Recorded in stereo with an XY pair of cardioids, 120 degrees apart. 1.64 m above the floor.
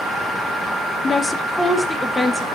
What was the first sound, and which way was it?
A woman speaking, 30° left.